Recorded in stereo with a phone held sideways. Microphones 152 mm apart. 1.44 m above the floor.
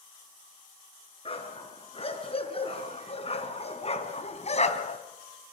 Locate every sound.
1.2 s a dog barking: 40° left (ahead or behind), 5.5 m; by 5.0 s 50° left (ahead or behind), 2.5 m